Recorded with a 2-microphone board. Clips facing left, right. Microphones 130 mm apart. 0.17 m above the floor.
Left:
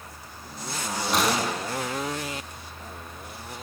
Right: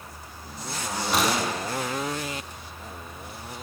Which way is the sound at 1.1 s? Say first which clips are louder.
Even; centre (ahead or behind).